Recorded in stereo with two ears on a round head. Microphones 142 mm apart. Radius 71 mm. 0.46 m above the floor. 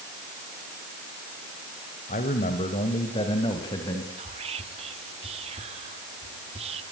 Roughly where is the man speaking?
Left.